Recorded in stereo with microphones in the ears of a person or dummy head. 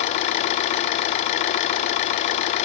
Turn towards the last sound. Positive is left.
turn(degrees=45)  # may be behind; listen again after turning